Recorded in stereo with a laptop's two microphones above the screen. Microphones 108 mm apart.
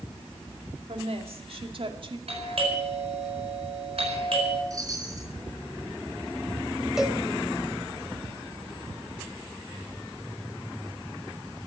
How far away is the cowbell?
About 2.5 m.